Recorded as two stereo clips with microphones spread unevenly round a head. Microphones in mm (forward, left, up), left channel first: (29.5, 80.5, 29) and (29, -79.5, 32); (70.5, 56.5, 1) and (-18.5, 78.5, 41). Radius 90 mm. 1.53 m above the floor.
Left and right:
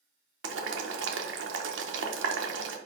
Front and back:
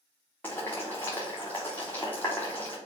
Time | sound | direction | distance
0.4 | boiling | 105° right | 1.0 m